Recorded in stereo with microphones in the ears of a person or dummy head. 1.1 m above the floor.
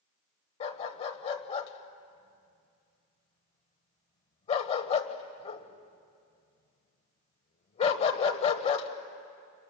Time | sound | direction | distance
0.6 | a dog barking | 30° left (ahead or behind) | 1.5 m